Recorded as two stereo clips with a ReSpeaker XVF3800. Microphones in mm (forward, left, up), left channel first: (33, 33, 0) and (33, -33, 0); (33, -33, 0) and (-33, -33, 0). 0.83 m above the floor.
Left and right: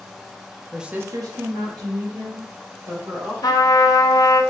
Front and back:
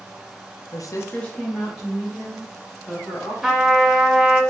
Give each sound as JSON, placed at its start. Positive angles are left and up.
{"t": 0.7, "sound": "a woman speaking", "azimuth_deg": 0, "distance_m": 0.6}
{"t": 3.4, "sound": "a trumpet", "azimuth_deg": 95, "distance_m": 0.9}